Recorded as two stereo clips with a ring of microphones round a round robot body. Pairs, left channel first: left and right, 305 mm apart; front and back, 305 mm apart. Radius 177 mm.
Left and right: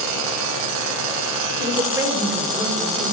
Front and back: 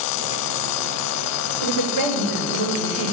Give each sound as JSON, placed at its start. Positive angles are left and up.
{"t": 1.6, "sound": "a woman speaking", "azimuth_deg": -15, "distance_m": 2.0}